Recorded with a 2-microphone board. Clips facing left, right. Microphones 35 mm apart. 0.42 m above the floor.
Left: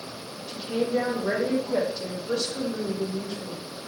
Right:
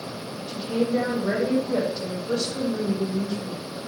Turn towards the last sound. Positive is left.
turn(degrees=0)  # may be behind; listen again after turning